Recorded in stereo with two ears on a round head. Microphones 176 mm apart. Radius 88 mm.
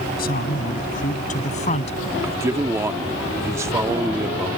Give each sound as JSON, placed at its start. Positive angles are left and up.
{"t": 0.2, "sound": "a man speaking", "side_deg": 50}
{"t": 2.2, "sound": "a man speaking", "side_deg": -15}